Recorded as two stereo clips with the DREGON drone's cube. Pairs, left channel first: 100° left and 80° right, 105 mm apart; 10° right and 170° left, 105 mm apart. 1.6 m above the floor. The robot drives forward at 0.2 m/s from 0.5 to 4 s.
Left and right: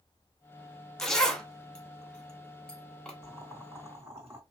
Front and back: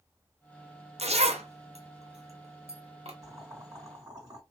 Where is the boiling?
140° right, 2.5 m.